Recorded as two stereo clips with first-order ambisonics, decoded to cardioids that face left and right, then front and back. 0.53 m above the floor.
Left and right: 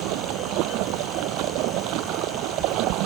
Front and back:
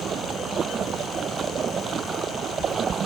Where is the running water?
120° right.